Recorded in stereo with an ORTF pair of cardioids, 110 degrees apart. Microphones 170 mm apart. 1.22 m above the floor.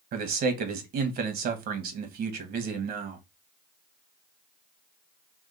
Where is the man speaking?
65° right, 1.4 m.